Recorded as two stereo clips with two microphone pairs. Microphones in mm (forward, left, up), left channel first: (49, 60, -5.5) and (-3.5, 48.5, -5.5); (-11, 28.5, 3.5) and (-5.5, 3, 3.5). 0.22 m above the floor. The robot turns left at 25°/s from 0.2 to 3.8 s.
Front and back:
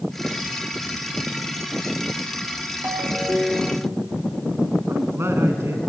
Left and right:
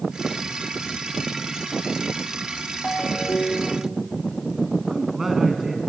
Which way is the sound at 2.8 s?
145° left.